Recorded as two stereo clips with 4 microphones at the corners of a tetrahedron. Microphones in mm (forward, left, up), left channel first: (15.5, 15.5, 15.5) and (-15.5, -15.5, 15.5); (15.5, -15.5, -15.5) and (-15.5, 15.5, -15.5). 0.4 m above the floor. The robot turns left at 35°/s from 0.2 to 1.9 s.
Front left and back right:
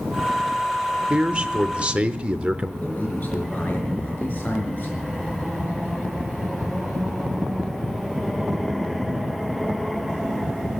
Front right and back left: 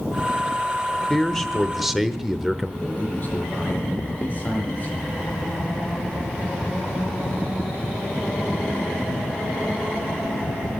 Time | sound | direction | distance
1.1 | a man speaking | 120° right | 0.8 m
2.8 | a man speaking | straight ahead | 5.5 m